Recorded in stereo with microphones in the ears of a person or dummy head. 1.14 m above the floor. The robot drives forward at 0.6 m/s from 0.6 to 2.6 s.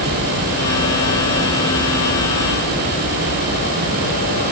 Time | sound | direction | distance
0.0 | an aircraft | 45° left (ahead or behind) | ?